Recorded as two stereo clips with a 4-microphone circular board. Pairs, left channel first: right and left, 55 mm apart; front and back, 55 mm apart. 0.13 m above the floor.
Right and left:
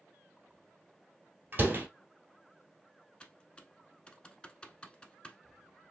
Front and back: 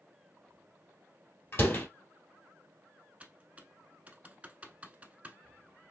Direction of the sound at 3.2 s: 145° right.